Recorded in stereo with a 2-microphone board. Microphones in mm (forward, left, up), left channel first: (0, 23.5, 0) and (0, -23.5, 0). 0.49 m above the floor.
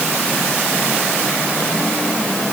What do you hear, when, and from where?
Only background noise.